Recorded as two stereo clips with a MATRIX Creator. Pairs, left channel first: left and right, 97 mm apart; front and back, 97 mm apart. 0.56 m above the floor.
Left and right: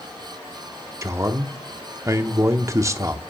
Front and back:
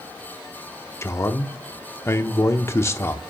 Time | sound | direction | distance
1.0 | a man speaking | 50° right | 0.8 m